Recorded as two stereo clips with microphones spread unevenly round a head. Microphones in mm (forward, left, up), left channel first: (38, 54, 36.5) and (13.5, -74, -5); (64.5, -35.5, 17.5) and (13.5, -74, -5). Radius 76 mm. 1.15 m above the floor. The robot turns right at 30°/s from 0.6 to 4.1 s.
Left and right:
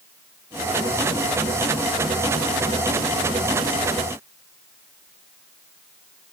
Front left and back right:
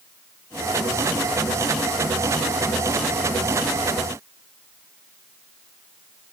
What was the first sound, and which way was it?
Only background noise.